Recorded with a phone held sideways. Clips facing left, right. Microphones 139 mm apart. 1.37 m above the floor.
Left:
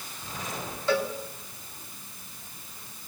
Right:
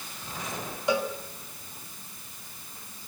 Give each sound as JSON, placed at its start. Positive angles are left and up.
{"t": 0.9, "sound": "a cowbell", "side_deg": -15, "distance_m": 2.0}